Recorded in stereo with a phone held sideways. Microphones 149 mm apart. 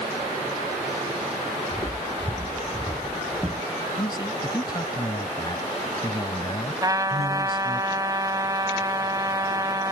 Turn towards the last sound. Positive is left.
turn(degrees=-25)  # may be behind; listen again after turning